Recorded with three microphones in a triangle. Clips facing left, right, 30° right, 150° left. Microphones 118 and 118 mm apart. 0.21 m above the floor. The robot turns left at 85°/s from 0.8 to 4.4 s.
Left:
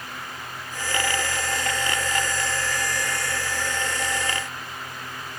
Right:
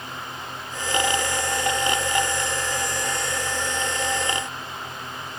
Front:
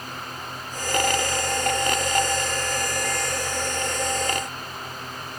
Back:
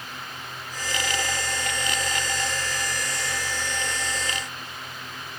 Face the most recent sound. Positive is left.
No sound to turn to.